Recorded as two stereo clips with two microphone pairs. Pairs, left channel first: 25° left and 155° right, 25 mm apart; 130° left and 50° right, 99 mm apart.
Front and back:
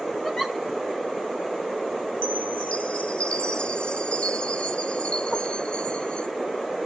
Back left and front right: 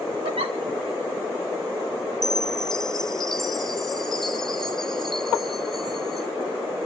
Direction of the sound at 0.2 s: 35° right.